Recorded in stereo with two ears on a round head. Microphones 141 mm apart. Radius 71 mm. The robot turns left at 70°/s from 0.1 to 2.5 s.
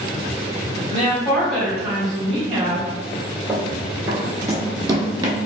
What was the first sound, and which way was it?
A woman speaking, 55° left.